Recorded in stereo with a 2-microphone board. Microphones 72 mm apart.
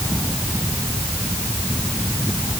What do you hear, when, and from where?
Only background noise.